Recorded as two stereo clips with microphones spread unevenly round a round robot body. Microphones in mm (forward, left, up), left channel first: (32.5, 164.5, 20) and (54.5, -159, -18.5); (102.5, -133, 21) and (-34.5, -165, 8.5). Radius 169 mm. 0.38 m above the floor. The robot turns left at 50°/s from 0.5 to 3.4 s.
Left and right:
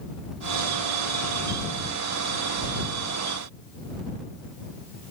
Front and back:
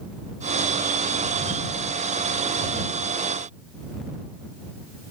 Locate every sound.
Only background noise.